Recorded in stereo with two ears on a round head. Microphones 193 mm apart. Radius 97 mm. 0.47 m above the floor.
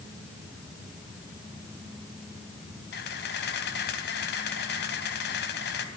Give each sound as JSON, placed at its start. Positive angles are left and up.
{"t": 2.9, "sound": "a camera shutter", "side_deg": 55, "distance_m": 3.0}